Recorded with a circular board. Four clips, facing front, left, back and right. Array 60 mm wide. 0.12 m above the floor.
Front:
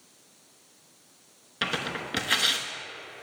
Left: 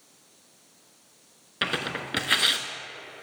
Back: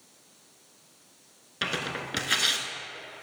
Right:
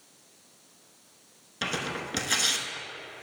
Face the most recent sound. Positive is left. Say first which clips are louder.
# left 2 dB, front 1 dB
turn(degrees=80)